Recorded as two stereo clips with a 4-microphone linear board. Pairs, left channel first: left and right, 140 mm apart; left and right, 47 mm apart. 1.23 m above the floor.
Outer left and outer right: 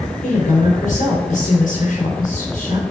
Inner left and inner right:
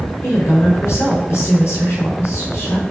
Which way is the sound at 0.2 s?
80° left.